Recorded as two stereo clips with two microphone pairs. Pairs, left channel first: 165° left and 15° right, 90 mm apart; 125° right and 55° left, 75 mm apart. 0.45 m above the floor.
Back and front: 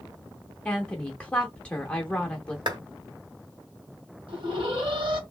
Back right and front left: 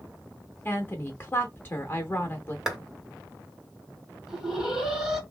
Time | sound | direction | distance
0.7 | a woman speaking | 130° right | 0.8 m
2.7 | a clap | 25° right | 1.9 m
4.3 | an alarm | 25° right | 2 m